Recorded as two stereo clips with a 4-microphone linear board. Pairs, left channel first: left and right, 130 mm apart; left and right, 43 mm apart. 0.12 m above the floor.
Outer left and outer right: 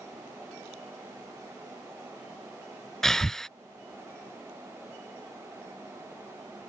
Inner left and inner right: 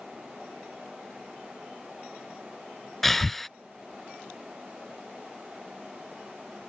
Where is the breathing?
5° left (ahead or behind).